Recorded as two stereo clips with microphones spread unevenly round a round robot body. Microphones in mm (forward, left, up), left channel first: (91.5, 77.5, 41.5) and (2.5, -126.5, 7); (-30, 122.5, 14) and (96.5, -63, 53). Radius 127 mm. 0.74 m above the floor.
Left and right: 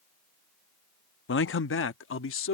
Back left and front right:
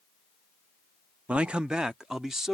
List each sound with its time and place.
1.3 s a man speaking: 35° left